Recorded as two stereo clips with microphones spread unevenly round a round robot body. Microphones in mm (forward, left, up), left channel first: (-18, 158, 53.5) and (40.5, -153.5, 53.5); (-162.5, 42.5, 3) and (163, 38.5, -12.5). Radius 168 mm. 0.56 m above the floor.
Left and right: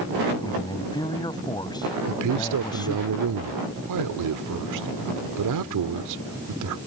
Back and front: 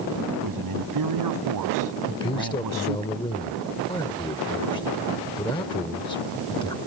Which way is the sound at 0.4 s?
25° left.